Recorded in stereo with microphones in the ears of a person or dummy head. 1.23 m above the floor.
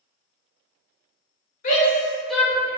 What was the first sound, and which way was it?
A shout, 35° left (ahead or behind).